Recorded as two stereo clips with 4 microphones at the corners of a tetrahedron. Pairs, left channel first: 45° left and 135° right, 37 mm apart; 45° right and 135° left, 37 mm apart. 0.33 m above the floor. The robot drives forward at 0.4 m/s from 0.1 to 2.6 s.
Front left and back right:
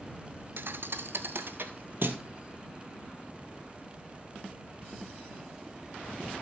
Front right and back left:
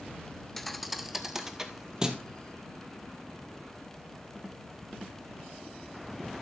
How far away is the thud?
About 0.6 m.